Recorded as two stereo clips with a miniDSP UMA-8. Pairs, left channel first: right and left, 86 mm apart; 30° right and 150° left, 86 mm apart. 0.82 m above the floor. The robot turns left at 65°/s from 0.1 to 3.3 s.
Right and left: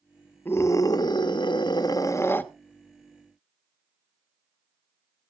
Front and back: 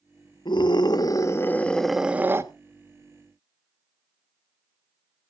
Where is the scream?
25° right, 1.1 m; by 2.5 s 155° right, 1.1 m.